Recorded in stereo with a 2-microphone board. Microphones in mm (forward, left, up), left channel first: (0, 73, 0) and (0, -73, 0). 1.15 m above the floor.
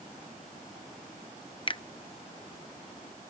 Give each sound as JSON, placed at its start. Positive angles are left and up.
{"t": 1.7, "sound": "a finger snap", "side_deg": 35}